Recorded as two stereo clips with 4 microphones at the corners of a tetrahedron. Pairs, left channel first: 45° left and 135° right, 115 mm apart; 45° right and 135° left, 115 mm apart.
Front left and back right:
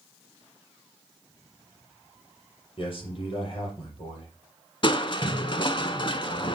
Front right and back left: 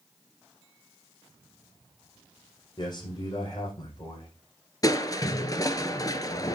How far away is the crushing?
About 0.6 m.